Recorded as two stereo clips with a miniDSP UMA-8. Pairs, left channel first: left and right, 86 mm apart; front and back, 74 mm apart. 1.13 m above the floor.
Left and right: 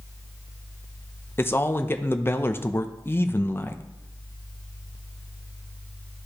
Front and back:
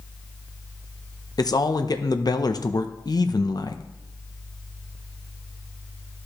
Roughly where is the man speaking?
Ahead left.